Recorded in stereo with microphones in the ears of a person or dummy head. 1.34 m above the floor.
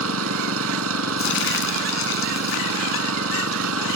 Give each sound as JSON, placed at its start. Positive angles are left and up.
{"t": 0.0, "sound": "an engine running", "side_deg": -75}
{"t": 1.2, "sound": "crumpling", "side_deg": 60}